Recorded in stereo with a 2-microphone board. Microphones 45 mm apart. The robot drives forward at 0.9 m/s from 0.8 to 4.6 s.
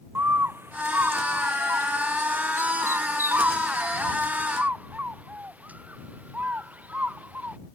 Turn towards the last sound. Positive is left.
turn(degrees=-35)  # may be behind; listen again after turning